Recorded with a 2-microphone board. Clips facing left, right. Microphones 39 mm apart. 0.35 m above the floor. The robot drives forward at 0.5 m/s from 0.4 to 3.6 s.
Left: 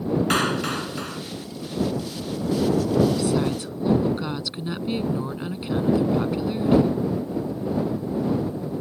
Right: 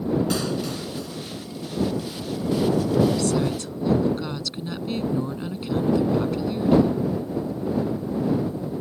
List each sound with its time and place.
0.3 s a clap: 55° left (ahead or behind); by 1.2 s 60° left (ahead or behind)
3.1 s a woman speaking: 15° left (ahead or behind)